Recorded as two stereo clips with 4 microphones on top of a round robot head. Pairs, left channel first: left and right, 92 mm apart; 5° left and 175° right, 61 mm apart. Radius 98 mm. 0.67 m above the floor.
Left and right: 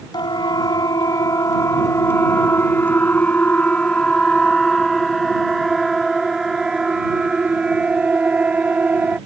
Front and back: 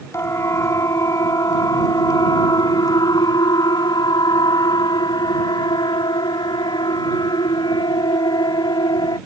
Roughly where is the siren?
Ahead left.